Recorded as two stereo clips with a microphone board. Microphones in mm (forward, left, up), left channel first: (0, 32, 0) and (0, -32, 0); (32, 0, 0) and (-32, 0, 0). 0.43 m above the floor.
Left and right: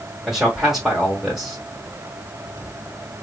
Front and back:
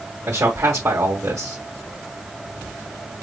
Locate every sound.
0.3 s a man speaking: 170° right, 1.0 m